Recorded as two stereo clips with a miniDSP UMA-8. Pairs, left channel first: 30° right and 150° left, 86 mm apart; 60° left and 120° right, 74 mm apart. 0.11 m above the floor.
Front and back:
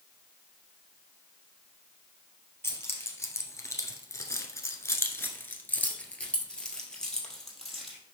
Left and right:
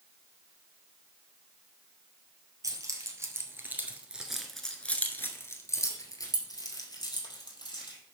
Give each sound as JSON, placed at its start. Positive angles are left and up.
{"t": 2.6, "sound": "keys jangling", "azimuth_deg": -85, "distance_m": 1.8}